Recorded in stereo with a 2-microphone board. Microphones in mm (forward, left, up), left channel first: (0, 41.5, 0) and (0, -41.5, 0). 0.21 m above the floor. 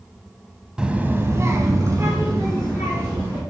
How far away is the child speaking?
About 0.7 m.